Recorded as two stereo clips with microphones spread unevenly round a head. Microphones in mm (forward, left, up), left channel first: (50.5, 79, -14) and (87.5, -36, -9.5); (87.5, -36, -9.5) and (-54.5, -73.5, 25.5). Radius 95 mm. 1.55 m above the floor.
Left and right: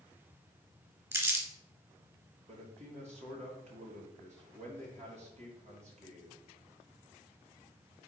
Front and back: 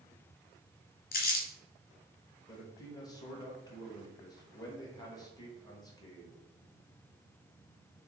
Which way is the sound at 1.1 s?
5° right.